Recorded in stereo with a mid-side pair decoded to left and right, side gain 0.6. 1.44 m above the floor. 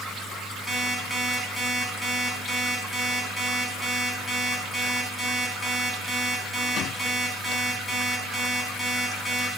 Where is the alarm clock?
10° left, 4.5 m.